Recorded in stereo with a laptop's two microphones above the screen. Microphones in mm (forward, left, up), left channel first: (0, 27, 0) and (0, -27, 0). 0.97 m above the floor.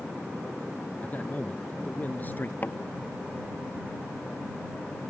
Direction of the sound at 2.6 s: 35° left (ahead or behind).